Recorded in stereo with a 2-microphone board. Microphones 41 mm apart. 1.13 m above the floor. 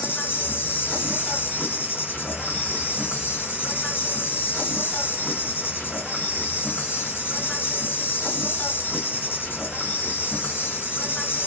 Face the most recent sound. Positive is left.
turn(degrees=55)  # may be behind; listen again after turning